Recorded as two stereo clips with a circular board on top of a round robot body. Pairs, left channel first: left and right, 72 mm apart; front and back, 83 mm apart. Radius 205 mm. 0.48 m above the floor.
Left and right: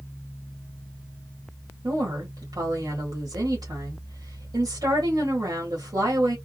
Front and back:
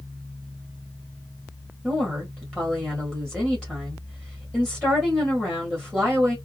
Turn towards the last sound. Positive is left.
turn(degrees=-85)